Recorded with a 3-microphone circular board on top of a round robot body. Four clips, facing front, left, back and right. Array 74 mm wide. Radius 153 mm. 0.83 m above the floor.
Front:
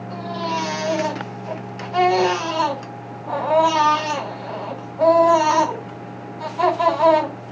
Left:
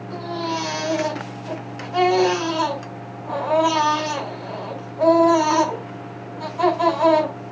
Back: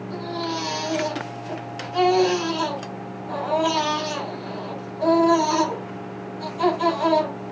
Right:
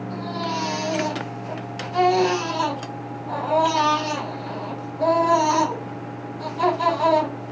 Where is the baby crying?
30° left, 4.5 m.